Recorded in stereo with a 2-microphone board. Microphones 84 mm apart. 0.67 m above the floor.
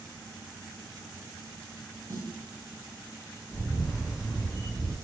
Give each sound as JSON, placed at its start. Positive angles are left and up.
{"t": 2.1, "sound": "a snare drum", "side_deg": -55, "distance_m": 1.1}
{"t": 3.5, "sound": "a camera shutter", "side_deg": 20, "distance_m": 1.3}